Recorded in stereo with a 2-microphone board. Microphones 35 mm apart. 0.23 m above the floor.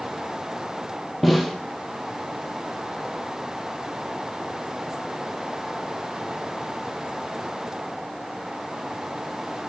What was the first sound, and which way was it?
A snare drum, centre (ahead or behind).